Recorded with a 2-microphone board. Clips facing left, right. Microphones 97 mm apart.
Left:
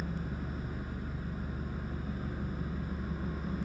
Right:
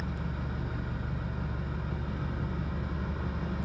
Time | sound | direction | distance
0.0 | an engine running | 65° right (ahead or behind) | 3 m